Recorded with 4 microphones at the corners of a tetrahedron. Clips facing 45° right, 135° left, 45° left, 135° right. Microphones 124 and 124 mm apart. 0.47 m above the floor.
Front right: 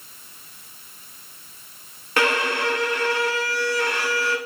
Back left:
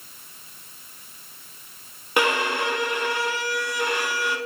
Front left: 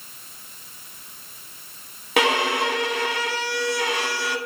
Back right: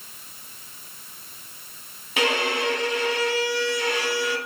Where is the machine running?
No machine running in this recording.